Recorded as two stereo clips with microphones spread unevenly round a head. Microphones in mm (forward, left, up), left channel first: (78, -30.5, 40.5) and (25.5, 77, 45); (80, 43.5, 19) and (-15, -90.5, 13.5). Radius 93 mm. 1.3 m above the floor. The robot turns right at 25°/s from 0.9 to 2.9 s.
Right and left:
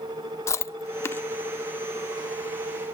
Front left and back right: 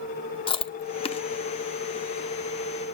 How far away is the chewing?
About 0.7 m.